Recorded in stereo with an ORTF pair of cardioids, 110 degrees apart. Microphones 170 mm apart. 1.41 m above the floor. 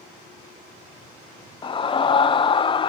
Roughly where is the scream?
Ahead left.